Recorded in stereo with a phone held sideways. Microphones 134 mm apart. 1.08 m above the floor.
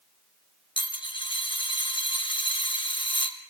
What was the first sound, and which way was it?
A dropped coin, 40° left (ahead or behind).